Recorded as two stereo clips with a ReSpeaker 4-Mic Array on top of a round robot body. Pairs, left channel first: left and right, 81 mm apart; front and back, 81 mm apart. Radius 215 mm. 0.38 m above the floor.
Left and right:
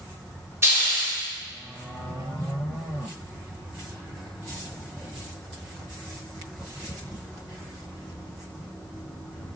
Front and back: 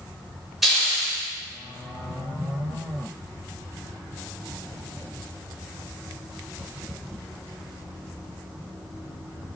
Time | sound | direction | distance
0.6 | a hiss | 95° right | 1.3 m